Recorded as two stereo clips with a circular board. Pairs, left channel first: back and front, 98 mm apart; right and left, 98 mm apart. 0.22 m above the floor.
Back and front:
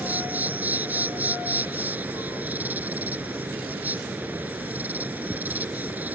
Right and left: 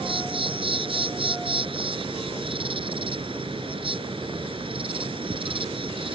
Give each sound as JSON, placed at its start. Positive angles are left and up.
{"t": 0.0, "sound": "an insect", "azimuth_deg": 70}